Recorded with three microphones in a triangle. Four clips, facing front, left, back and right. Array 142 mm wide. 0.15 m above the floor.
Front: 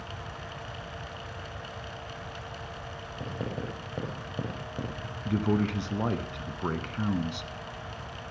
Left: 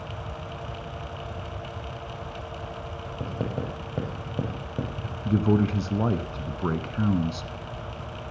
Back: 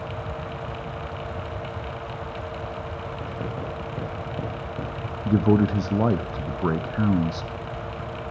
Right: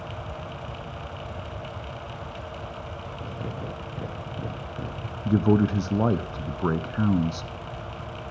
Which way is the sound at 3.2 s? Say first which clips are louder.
Left 5 dB, even; 100° left.